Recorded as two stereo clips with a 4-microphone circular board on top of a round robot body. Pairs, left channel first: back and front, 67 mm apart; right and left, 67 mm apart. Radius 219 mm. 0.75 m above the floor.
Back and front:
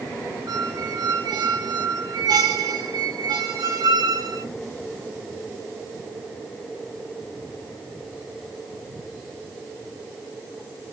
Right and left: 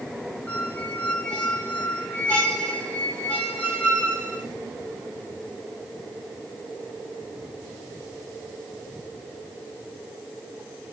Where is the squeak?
15° right, 0.8 m.